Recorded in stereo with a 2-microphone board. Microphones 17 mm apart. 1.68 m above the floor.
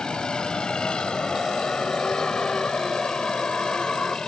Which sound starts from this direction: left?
A vehicle, at 0.0 s.